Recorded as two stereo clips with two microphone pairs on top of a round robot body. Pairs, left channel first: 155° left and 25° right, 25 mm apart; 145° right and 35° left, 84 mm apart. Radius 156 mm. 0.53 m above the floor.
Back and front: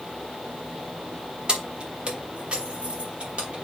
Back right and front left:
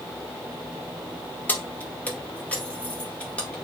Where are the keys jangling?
75° right, 1.6 m; by 3.5 s 65° right, 3 m.